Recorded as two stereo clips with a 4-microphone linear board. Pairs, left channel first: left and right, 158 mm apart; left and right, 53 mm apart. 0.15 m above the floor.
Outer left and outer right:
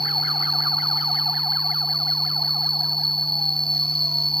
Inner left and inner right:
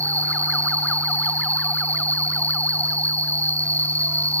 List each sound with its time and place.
0.0 s an insect: 80° right, 1.0 m